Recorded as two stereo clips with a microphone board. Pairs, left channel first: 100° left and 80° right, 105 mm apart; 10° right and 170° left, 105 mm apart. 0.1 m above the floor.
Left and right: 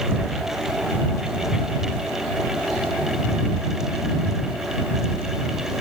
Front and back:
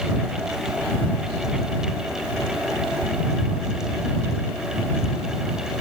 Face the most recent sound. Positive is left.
No sound to turn to.